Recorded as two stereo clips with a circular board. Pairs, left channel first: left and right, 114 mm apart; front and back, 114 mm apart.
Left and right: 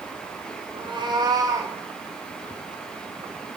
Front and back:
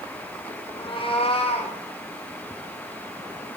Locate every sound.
0.7 s a cat meowing: 45° right, 1.6 m; by 1.8 s 25° right, 2.5 m